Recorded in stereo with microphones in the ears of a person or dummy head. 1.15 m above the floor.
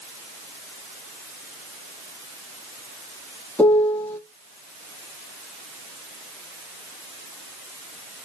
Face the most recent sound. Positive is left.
turn(degrees=15)  # may be behind; listen again after turning